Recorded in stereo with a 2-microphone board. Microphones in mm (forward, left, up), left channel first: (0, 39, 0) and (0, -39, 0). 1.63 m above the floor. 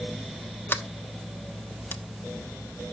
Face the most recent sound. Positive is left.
turn(degrees=30)  # may be behind; listen again after turning